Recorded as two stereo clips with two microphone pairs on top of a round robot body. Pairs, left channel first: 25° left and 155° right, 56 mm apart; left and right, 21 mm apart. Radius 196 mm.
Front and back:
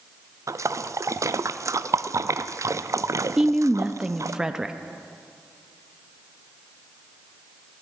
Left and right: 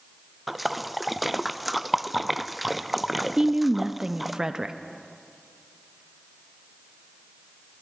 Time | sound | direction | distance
0.5 | a splash | straight behind | 0.6 m
3.4 | a woman speaking | 65° right | 0.6 m